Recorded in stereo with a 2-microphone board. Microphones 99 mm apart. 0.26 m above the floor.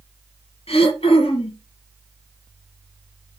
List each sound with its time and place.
0.7 s throat clearing: 80° left, 2.5 m